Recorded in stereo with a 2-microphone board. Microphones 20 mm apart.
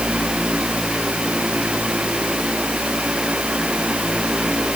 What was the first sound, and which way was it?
Only background noise.